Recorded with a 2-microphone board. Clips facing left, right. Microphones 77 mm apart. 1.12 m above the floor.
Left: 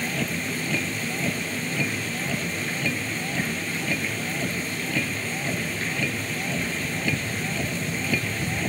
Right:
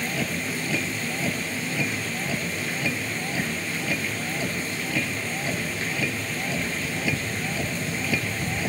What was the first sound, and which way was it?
A vehicle, 5° right (ahead or behind).